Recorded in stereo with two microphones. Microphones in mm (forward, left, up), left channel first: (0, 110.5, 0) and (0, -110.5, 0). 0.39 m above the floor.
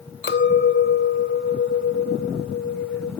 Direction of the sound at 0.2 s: 55° left (ahead or behind).